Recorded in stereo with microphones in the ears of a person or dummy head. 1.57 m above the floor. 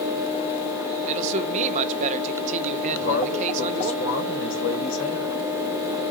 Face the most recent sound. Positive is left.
turn(degrees=80)